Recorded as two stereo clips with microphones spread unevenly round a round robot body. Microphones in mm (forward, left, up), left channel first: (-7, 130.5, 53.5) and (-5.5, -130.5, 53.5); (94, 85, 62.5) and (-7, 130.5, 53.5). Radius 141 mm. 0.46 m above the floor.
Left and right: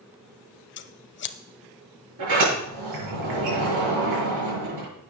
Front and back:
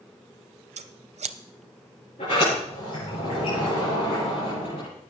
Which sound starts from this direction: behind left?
Scissors, at 0.8 s.